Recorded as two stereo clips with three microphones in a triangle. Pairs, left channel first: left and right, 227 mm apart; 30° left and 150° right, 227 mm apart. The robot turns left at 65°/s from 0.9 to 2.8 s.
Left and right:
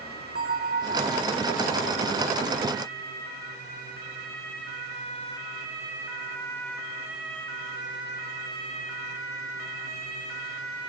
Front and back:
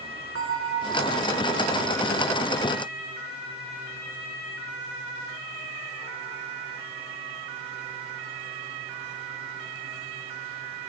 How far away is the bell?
About 2.0 m.